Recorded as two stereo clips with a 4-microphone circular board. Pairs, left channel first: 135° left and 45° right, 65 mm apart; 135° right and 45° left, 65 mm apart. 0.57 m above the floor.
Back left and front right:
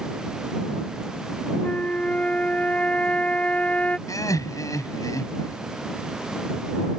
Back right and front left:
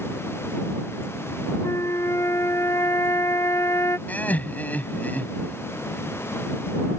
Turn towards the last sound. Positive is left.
turn(degrees=160)